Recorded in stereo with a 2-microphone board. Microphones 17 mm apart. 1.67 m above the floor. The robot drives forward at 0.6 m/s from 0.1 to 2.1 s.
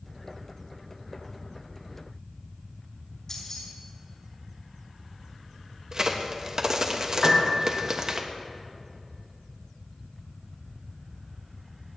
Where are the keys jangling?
35° left (ahead or behind), 5 m.